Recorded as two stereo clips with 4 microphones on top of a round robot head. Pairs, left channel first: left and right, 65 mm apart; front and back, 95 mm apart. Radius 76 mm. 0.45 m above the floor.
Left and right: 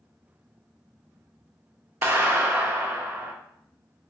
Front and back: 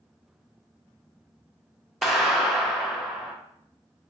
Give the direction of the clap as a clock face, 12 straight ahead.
3 o'clock.